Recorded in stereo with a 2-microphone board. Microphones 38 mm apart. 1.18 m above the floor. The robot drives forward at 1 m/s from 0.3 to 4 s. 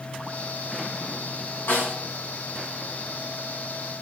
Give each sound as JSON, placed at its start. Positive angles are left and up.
{"t": 1.7, "sound": "a snare drum", "side_deg": 70, "distance_m": 5.0}